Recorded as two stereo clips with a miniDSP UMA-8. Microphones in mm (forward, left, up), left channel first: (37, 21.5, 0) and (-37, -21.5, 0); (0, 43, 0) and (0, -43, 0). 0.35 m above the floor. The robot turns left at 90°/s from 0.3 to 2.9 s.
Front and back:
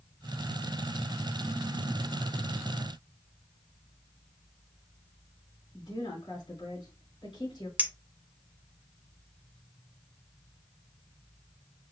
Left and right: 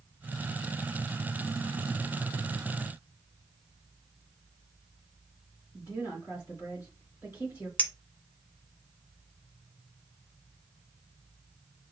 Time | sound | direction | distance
5.7 | a woman speaking | 40° left | 3 m
7.8 | a clink | 150° left | 0.6 m